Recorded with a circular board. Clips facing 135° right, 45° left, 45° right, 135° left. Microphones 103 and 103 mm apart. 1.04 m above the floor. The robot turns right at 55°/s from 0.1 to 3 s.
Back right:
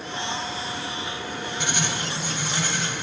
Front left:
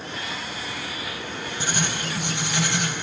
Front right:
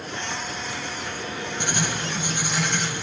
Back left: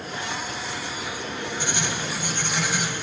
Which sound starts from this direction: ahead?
Writing, at 1.6 s.